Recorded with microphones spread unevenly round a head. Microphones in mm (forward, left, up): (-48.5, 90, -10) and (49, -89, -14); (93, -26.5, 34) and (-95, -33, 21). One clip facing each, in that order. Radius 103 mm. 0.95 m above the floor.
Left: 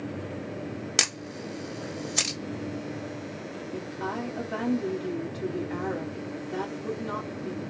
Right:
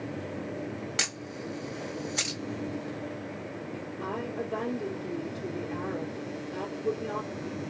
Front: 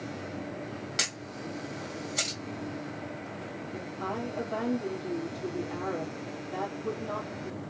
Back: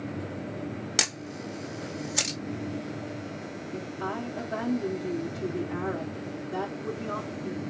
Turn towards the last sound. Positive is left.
turn(degrees=105)